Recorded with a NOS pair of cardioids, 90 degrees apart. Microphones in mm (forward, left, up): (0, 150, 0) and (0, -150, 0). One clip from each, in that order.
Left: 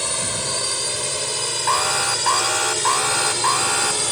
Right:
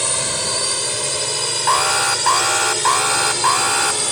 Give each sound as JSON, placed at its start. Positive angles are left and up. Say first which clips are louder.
{"t": 0.0, "sound": "a drone", "louder": "right 3 dB", "azimuth_deg": -20}
{"t": 1.7, "sound": "an alarm", "louder": "right 3 dB", "azimuth_deg": -25}